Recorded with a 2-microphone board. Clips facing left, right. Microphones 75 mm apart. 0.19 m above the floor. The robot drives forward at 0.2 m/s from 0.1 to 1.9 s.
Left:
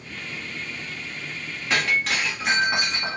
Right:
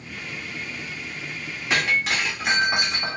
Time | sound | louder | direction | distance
1.7 | breaking glass | even | 5° right (ahead or behind) | 1.6 m